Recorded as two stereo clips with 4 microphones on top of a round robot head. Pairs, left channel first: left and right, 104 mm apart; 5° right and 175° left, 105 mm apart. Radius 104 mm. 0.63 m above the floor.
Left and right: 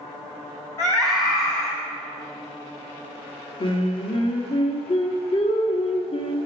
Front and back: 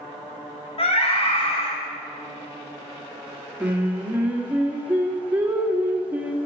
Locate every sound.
0.8 s a scream: 20° left, 4 m
3.6 s singing: 100° left, 1.6 m